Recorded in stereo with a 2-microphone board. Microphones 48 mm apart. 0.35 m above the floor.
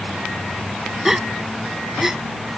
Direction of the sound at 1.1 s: 10° right (ahead or behind).